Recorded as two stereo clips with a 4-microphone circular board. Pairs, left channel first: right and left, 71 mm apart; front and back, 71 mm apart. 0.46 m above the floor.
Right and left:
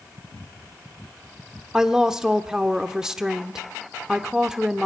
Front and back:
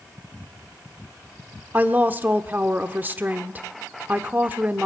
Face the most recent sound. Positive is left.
turn(degrees=160)